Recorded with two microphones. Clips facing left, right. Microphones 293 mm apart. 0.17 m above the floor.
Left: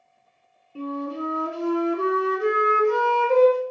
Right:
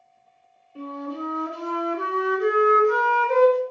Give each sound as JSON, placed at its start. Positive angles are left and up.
{"t": 0.8, "sound": "a flute", "side_deg": 30, "distance_m": 1.1}